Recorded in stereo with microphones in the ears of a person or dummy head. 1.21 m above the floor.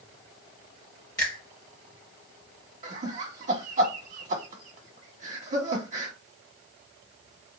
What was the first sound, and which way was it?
A finger snap, 15° left (ahead or behind).